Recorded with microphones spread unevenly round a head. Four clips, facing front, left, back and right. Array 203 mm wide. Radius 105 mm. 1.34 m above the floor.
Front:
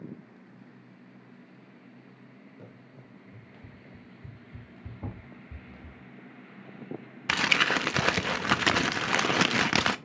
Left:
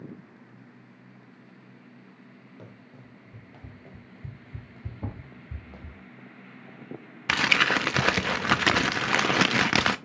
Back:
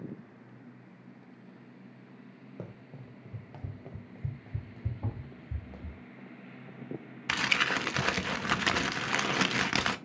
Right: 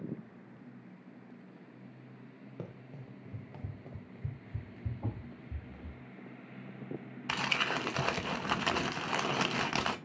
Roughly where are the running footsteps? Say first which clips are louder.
Right 4 dB, back 8 dB; behind right.